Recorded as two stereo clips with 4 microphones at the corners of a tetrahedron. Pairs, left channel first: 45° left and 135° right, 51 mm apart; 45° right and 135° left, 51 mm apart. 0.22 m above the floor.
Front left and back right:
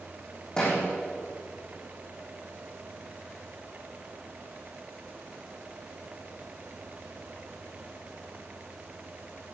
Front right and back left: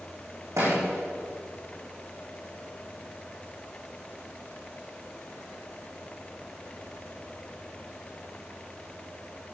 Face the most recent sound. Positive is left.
turn(degrees=120)